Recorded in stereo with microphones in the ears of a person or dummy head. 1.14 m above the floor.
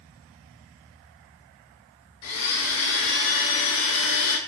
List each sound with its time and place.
2.2 s a blender: 75° left (ahead or behind), 0.8 m